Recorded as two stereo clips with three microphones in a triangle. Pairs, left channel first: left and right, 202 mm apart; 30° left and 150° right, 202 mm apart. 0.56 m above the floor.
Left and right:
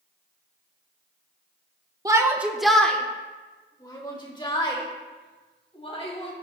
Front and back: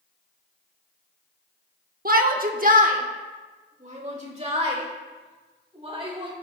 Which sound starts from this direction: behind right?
A shout, at 2.0 s.